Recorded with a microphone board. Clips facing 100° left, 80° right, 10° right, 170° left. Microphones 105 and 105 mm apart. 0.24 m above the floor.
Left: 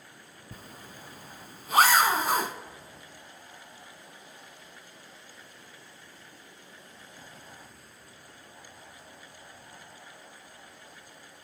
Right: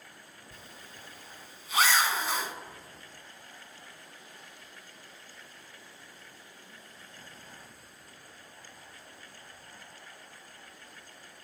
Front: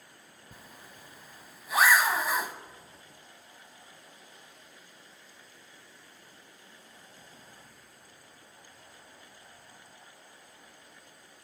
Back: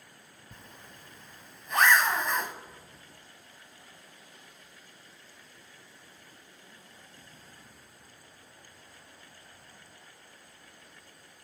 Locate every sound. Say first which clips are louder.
0.5 s a zipper: left 5 dB, even; 70° left, 0.7 m